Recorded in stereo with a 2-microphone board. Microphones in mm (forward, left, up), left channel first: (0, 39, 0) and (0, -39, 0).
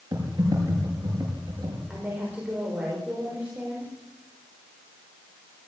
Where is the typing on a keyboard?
50° right (ahead or behind), 7.5 m.